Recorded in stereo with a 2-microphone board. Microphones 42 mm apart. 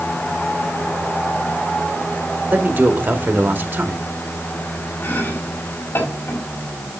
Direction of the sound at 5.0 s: 65° left (ahead or behind).